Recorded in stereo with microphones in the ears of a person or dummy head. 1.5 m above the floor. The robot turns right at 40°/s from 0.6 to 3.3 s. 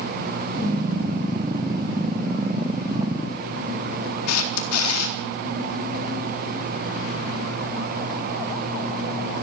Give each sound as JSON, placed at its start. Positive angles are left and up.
{"t": 4.3, "sound": "a camera shutter", "side_deg": 80, "distance_m": 4.0}